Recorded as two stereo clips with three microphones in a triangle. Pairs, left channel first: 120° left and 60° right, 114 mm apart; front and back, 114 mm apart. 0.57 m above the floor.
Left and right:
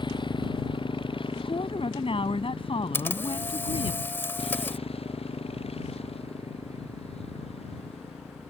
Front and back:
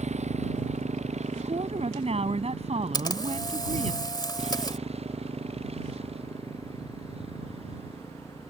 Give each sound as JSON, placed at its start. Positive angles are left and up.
{"t": 0.0, "sound": "a motorcycle", "azimuth_deg": 165}
{"t": 1.4, "sound": "a woman speaking", "azimuth_deg": 155}
{"t": 2.9, "sound": "a camera shutter", "azimuth_deg": 50}